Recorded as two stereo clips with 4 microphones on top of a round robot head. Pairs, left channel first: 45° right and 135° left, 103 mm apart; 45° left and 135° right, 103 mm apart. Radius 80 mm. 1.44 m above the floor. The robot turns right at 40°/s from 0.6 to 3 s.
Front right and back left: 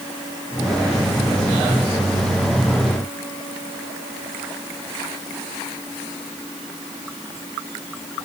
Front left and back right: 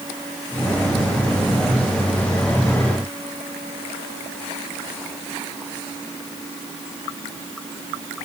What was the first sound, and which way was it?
Only background noise.